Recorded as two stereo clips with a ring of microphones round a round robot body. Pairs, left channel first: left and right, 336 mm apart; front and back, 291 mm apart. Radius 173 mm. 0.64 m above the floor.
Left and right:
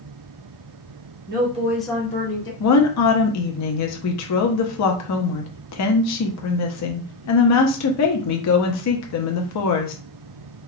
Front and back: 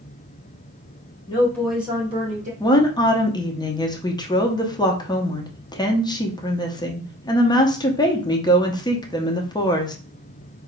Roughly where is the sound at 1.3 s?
Ahead right.